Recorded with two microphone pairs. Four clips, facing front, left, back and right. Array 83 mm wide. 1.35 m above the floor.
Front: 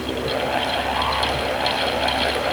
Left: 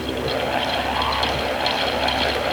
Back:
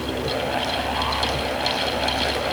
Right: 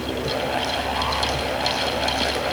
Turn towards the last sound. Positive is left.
No sound to turn to.